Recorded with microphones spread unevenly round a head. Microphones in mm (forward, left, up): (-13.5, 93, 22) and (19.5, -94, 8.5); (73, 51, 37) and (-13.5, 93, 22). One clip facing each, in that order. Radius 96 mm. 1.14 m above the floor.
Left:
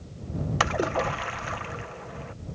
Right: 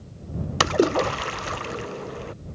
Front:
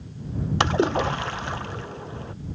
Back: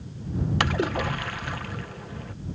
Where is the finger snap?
No finger snap in this recording.